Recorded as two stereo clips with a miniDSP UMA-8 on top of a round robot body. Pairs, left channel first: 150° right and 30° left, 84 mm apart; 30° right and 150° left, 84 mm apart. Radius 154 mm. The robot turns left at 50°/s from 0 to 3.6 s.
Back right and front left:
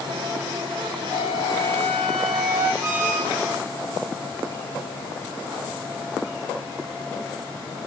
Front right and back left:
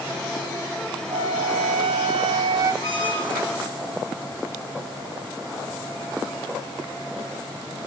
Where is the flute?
175° left, 1.3 m; by 2.7 s 95° left, 1.3 m.